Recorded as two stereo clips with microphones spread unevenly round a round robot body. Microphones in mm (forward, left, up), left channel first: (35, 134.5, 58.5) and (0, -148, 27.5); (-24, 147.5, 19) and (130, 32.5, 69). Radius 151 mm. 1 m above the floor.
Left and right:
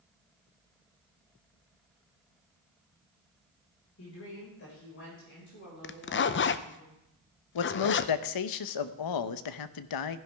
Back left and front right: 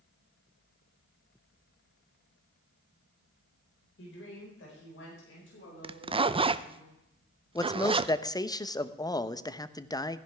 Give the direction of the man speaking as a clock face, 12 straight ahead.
9 o'clock.